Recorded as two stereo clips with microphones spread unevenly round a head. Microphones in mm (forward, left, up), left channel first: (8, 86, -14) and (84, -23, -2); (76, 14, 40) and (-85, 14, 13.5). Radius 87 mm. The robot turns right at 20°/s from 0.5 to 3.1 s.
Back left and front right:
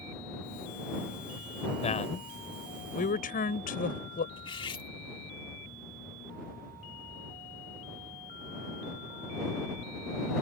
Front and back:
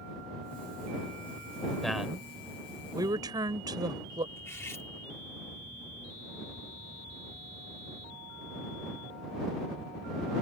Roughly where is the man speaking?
Left.